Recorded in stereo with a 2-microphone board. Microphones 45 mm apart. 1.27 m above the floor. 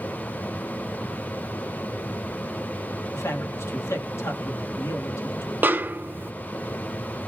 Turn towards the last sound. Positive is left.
turn(degrees=-45)  # may be behind; listen again after turning